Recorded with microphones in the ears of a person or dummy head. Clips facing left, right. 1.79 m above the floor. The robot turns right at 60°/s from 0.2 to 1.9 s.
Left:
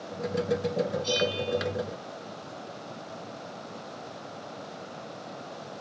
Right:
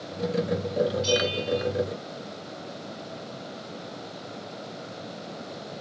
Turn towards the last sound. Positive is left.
turn(degrees=-35)